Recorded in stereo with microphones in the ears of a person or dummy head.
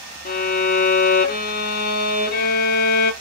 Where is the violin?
45° left (ahead or behind), 0.5 m.